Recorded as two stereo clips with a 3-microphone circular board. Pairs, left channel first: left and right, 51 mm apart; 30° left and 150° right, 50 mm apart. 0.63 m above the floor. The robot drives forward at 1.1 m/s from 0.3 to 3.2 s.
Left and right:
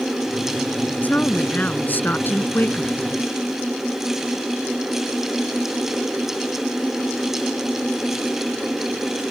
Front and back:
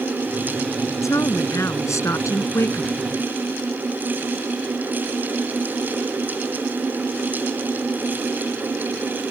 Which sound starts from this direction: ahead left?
A woman speaking, at 1.0 s.